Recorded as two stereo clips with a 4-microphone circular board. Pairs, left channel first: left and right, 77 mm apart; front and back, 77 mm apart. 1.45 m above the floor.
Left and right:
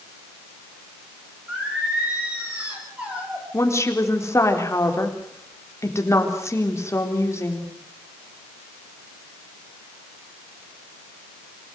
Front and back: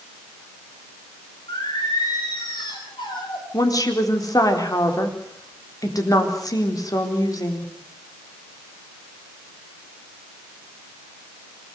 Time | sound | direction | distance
1.5 | singing | 15° right | 6.5 m
3.5 | a woman speaking | 40° left | 4 m